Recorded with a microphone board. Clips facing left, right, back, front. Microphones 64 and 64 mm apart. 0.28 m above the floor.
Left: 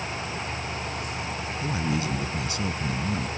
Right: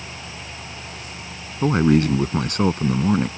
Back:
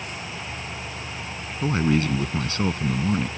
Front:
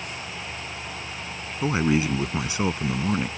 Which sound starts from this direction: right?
A man speaking, at 1.6 s.